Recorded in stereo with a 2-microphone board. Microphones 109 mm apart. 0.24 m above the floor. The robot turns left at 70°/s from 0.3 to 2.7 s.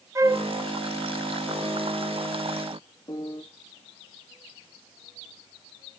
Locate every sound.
0.1 s a flute: 25° right (ahead or behind), 0.6 m
3.1 s a piano: 35° left (ahead or behind), 2.5 m